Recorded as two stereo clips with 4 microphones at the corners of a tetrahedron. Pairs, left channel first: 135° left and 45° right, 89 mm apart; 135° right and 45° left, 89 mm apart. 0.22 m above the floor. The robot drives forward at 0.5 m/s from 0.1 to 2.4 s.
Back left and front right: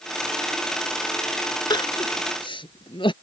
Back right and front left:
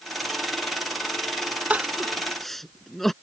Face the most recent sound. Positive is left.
turn(degrees=135)